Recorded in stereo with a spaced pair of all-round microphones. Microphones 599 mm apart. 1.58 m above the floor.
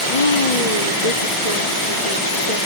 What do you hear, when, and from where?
0.1 s a woman speaking: 80° left